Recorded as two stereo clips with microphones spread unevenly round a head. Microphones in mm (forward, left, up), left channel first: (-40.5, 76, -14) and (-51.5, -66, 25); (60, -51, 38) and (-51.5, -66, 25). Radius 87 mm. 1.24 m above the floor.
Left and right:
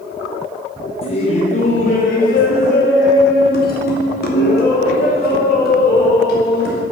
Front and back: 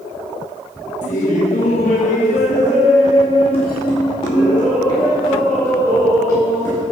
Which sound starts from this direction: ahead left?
Laughter, at 1.0 s.